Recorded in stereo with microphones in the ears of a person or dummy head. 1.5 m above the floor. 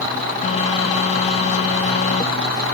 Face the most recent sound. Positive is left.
turn(degrees=40)  # may be behind; listen again after turning